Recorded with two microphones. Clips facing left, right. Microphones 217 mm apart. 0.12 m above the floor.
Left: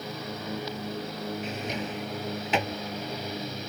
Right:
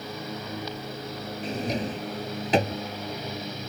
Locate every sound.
1.4 s a drawer: 35° right (ahead or behind)